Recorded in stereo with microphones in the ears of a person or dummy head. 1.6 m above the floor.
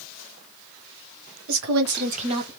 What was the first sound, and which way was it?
A woman speaking, 80° right.